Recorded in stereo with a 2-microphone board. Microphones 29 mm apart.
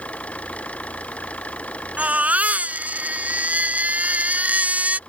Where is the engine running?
50° left (ahead or behind).